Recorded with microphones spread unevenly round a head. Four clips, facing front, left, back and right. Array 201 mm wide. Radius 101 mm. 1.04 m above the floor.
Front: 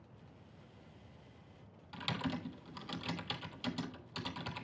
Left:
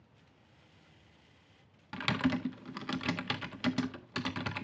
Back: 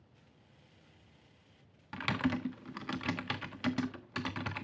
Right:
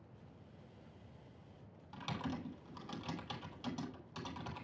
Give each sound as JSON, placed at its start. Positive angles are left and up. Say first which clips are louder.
{"t": 1.9, "sound": "typing on a keyboard", "louder": "left 11 dB, back 6 dB", "azimuth_deg": 120, "distance_m": 1.5}